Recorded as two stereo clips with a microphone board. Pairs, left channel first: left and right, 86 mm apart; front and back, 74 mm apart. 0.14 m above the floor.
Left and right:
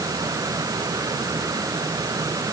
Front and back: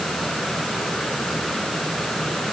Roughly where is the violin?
No violin in this recording.